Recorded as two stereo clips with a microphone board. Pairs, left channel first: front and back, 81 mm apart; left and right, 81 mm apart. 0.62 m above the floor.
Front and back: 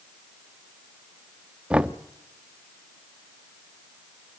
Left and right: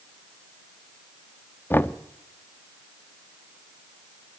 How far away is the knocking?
About 0.9 m.